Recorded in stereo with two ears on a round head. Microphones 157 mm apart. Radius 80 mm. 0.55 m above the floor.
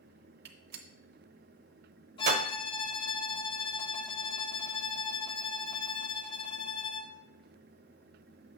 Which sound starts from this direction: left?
A violin, at 2.2 s.